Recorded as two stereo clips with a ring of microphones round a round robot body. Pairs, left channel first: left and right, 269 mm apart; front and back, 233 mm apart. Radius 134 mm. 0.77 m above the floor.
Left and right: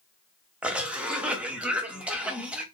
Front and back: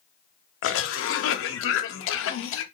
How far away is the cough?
About 0.6 m.